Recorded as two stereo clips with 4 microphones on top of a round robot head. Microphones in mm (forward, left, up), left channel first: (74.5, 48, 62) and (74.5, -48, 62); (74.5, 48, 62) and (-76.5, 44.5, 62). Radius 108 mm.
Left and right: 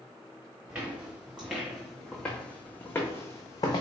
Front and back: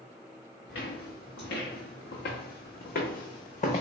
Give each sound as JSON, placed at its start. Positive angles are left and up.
{"t": 0.7, "sound": "footsteps", "azimuth_deg": -20, "distance_m": 2.0}